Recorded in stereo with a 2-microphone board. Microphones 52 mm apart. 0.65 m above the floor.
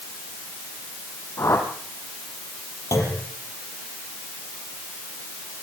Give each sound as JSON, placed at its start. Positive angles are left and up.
{"t": 1.4, "sound": "a whoosh", "side_deg": 60, "distance_m": 4.0}
{"t": 2.9, "sound": "a clunk", "side_deg": 80, "distance_m": 6.5}